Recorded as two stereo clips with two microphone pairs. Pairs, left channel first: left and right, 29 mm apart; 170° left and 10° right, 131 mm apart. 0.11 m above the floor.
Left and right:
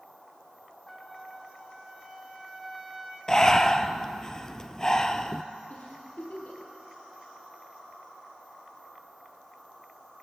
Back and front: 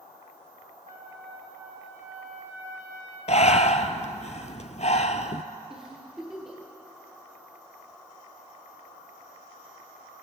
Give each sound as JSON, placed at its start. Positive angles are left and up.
{"t": 0.9, "sound": "a trumpet", "azimuth_deg": 5, "distance_m": 3.5}
{"t": 3.3, "sound": "breathing", "azimuth_deg": 155, "distance_m": 0.9}
{"t": 5.7, "sound": "a giggle", "azimuth_deg": 75, "distance_m": 5.0}